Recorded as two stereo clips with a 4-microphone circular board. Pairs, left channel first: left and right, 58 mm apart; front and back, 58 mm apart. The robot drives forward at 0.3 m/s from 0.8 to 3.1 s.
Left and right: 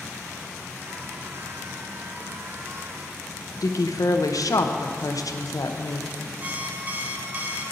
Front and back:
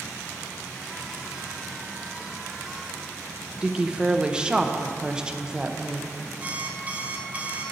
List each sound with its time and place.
3.6 s a woman speaking: 105° left, 0.6 m
6.4 s an alarm clock: 135° right, 0.8 m